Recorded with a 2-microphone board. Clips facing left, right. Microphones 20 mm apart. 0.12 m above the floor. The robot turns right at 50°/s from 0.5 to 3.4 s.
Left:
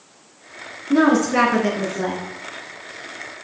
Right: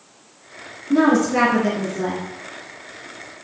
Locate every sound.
0.9 s a woman speaking: 15° left (ahead or behind), 1.1 m; by 2.2 s 20° left (ahead or behind), 1.1 m